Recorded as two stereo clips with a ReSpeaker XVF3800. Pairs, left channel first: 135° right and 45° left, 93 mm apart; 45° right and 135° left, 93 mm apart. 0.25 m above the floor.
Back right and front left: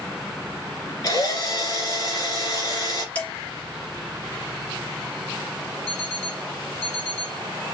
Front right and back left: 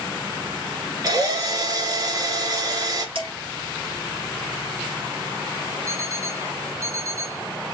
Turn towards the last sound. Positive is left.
turn(degrees=85)